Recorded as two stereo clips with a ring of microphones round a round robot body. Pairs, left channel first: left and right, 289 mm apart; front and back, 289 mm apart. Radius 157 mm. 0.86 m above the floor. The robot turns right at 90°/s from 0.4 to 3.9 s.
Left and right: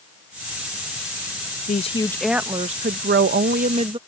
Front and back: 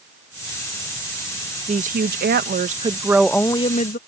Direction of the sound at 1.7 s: 130° left.